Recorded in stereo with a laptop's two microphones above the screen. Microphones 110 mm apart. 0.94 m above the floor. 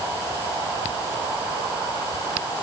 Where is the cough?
No cough in this recording.